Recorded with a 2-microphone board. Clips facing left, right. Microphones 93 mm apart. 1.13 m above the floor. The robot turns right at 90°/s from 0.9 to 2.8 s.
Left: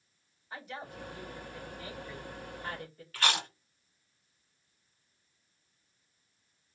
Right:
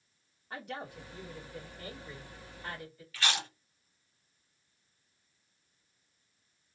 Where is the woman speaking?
125° right, 2.5 m; by 3.0 s 45° left, 2.5 m.